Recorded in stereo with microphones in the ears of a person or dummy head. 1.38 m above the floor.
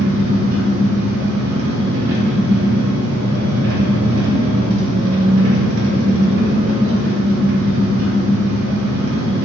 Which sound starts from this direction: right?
An engine running, at 0.0 s.